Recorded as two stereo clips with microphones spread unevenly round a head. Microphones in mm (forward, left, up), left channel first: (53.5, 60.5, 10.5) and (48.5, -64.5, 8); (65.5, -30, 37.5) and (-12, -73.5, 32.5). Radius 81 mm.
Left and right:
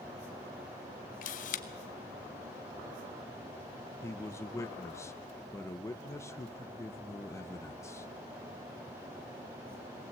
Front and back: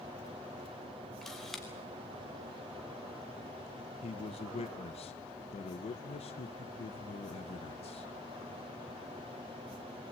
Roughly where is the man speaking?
Ahead.